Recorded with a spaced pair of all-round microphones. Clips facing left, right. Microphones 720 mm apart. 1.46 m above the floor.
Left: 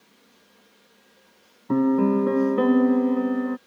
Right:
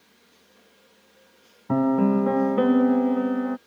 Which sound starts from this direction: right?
A piano, at 1.7 s.